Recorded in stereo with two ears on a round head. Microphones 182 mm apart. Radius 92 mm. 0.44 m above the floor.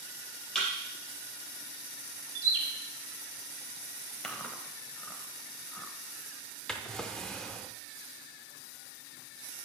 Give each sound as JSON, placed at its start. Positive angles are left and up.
{"t": 0.6, "sound": "a thud", "side_deg": 5, "distance_m": 3.5}
{"t": 2.4, "sound": "a bird", "side_deg": -55, "distance_m": 1.7}
{"t": 4.2, "sound": "chewing", "side_deg": 5, "distance_m": 0.7}
{"t": 6.7, "sound": "a drawer", "side_deg": 5, "distance_m": 0.6}